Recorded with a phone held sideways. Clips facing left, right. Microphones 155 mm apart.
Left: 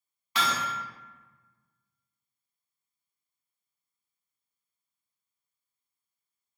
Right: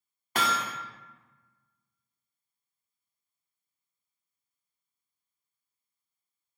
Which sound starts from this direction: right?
Hammering, at 0.3 s.